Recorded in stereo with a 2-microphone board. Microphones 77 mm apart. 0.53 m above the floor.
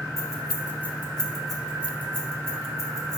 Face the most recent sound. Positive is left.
turn(degrees=-45)  # may be behind; listen again after turning